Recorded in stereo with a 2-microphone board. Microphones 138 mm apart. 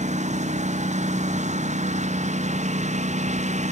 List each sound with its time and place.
0.0 s a lawn mower: 60° right (ahead or behind)